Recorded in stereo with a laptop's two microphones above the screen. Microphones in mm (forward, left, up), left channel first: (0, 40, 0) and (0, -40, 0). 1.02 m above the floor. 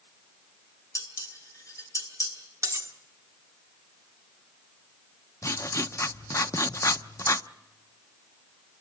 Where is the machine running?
No machine running in this recording.